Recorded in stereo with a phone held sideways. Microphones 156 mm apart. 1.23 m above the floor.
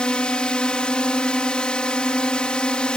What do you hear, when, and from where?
0.0 s a drone: 5° left (ahead or behind)